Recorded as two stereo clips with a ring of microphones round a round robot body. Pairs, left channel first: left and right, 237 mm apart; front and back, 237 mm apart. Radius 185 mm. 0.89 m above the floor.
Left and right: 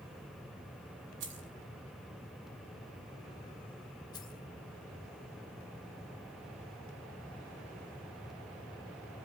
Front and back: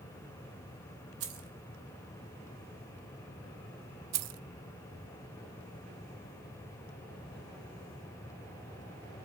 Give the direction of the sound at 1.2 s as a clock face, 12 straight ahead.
5 o'clock.